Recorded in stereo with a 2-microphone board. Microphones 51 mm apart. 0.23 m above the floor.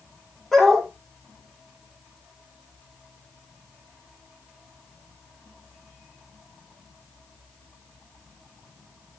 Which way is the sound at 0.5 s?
5° left (ahead or behind).